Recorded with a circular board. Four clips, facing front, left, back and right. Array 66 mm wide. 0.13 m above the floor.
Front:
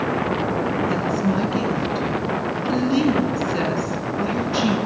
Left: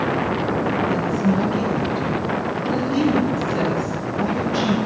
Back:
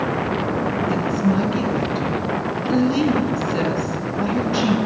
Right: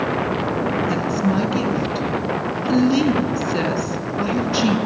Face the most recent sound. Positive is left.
turn(degrees=-90)